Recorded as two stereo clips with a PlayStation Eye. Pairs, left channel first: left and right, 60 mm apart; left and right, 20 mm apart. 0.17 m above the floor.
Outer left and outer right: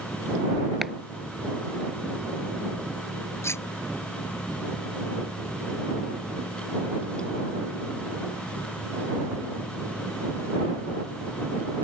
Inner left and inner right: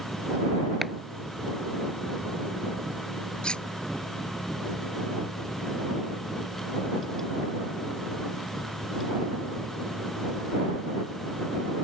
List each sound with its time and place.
0.8 s chopping: 5° right (ahead or behind)
3.4 s cutlery clinking: 50° left (ahead or behind)